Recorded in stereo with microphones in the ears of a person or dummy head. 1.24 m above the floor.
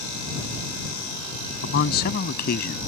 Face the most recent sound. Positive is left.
turn(degrees=60)  # may be behind; listen again after turning